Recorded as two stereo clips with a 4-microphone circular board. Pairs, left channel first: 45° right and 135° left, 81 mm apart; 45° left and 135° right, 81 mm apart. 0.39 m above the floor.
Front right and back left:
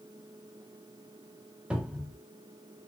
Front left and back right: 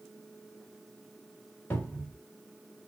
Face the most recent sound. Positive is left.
turn(degrees=75)